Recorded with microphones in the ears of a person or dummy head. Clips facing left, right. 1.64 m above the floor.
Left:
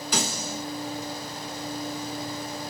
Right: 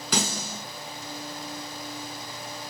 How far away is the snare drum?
About 1.5 m.